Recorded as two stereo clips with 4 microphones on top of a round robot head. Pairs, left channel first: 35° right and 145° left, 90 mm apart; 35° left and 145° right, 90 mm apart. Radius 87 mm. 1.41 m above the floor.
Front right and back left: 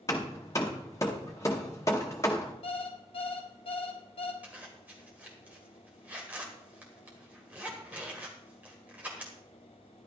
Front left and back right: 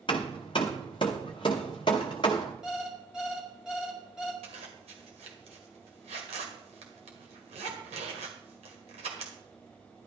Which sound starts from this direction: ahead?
Hammering, at 0.1 s.